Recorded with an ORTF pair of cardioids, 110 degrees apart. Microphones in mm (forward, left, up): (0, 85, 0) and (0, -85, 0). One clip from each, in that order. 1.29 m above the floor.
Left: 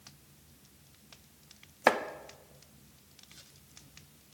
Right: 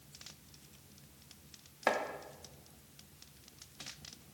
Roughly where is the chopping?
Ahead left.